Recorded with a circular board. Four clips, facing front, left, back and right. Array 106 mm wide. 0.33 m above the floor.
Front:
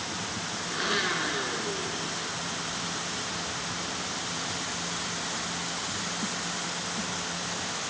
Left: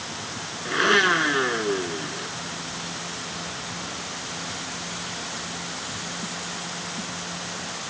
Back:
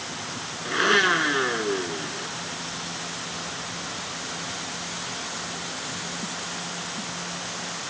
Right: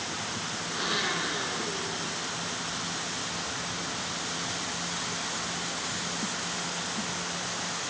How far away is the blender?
About 0.7 m.